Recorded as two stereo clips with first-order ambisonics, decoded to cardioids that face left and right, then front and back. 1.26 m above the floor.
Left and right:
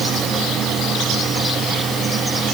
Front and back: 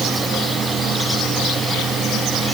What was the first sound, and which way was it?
Only background noise.